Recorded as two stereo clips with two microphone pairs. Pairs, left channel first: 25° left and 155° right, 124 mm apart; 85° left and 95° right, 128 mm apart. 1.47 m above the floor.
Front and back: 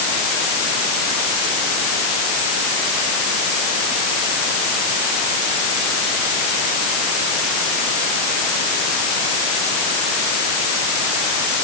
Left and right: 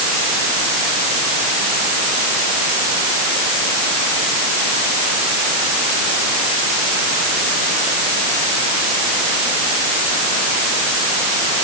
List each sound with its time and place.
Only background noise.